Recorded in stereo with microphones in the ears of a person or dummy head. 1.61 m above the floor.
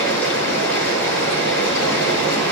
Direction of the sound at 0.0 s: 10° left (ahead or behind).